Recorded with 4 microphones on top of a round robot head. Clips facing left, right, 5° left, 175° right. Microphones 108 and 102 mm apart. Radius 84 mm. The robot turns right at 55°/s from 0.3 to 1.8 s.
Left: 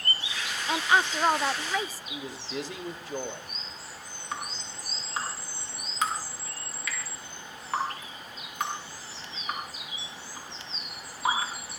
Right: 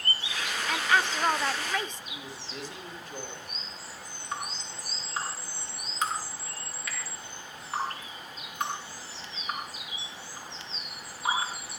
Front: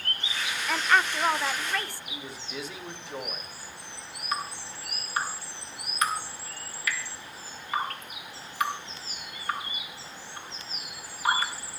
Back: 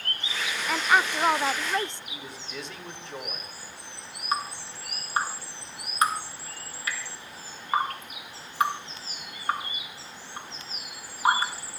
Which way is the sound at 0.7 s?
100° left.